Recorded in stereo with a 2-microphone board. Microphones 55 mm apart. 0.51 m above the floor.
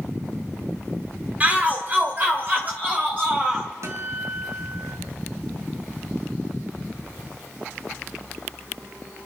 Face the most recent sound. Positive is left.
turn(degrees=-60)  # may be behind; listen again after turning